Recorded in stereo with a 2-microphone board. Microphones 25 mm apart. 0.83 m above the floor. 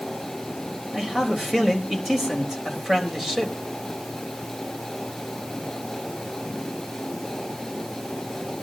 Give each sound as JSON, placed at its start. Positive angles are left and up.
{"t": 0.9, "sound": "a man speaking", "side_deg": -15, "distance_m": 3.5}